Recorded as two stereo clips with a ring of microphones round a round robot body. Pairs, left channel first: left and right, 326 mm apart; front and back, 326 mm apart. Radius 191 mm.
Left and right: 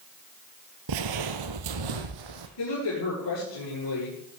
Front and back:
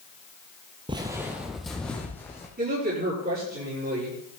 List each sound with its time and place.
0.9 s footsteps: 105° right, 0.8 m; by 2.5 s 85° right, 1.7 m
2.6 s a woman speaking: 120° left, 7 m